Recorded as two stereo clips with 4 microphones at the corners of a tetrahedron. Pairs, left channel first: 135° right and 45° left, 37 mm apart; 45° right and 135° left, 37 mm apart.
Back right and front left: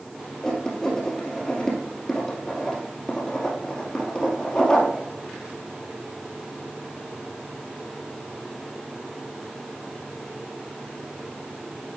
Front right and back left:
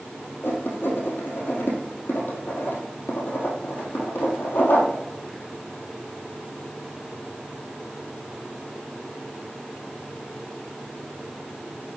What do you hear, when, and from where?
0.4 s writing: 65° right, 2.5 m